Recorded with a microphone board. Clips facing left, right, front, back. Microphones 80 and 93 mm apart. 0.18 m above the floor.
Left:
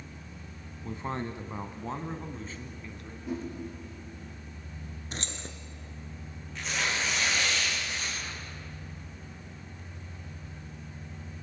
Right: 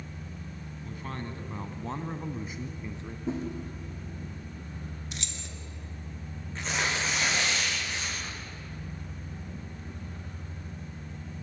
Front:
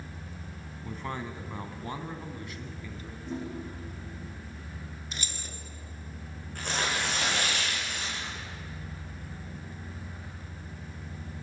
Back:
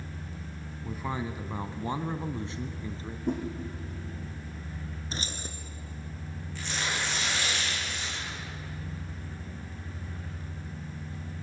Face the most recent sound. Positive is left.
turn(degrees=-35)